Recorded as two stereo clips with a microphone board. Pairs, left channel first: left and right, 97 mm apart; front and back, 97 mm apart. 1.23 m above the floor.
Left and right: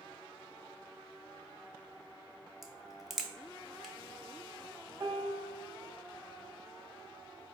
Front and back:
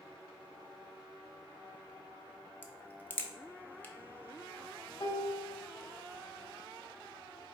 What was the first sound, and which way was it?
A crack, straight ahead.